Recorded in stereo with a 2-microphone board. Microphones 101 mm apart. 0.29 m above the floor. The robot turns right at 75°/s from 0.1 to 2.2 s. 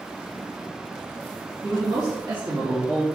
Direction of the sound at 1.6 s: 145° right.